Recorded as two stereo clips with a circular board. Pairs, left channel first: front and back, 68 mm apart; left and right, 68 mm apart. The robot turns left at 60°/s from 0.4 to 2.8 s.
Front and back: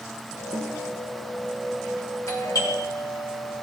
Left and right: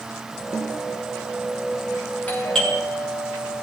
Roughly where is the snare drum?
Behind left.